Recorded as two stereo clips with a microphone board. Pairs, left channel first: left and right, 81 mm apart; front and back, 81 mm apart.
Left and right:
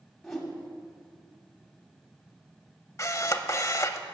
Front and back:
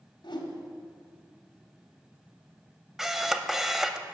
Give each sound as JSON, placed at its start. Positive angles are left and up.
{"t": 0.2, "sound": "a whoosh", "azimuth_deg": 5, "distance_m": 2.0}
{"t": 3.0, "sound": "a camera shutter", "azimuth_deg": 95, "distance_m": 0.7}